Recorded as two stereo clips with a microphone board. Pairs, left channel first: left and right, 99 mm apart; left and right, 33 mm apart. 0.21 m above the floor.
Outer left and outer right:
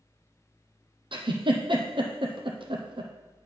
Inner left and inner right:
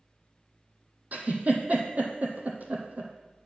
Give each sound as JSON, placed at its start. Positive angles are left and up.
{"t": 1.1, "sound": "a giggle", "side_deg": -60, "distance_m": 1.3}